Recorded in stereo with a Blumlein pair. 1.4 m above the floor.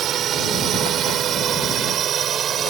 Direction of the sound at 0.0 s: 30° right.